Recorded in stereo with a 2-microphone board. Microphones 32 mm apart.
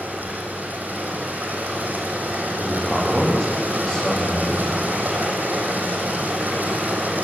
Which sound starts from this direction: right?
Running water, at 0.0 s.